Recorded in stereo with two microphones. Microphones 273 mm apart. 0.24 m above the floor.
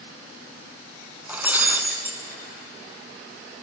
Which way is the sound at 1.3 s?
5° right (ahead or behind).